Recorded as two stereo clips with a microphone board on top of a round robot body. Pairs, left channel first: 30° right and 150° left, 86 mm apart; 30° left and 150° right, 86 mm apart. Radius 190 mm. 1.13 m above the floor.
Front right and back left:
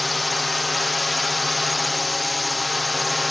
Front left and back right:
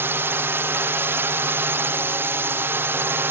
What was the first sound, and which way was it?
A drone, 120° right.